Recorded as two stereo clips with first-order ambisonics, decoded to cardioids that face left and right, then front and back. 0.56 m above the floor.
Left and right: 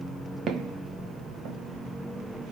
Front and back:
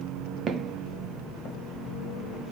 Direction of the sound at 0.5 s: 130° right.